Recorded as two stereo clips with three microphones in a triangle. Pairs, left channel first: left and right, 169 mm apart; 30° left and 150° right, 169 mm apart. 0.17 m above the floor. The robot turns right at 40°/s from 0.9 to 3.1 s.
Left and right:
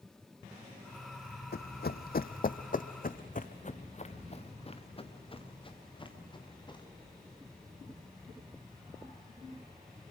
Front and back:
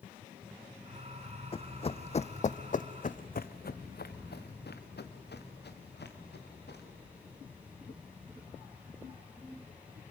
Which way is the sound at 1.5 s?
80° left.